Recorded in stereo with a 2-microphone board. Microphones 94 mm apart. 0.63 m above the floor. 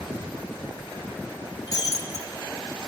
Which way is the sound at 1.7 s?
40° left (ahead or behind).